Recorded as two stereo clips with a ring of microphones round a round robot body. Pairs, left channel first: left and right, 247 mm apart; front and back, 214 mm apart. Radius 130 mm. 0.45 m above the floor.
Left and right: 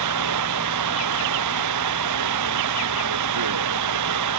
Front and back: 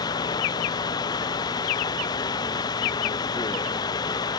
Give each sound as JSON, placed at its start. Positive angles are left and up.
{"t": 0.0, "sound": "running water", "azimuth_deg": -75}